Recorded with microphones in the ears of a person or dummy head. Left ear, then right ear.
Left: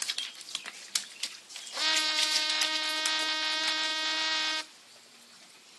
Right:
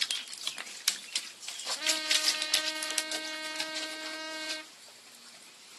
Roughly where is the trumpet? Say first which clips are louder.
Left 3 dB; left.